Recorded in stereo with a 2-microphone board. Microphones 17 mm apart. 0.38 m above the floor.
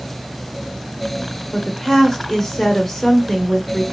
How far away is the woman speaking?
About 1.1 m.